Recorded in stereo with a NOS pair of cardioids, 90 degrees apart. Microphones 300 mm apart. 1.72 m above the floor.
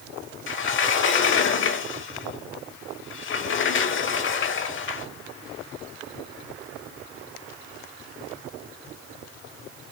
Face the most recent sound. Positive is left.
turn(degrees=40)